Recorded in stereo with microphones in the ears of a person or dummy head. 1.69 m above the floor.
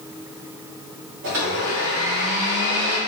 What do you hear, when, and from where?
1.2 s a blender: 60° right (ahead or behind), 1.3 m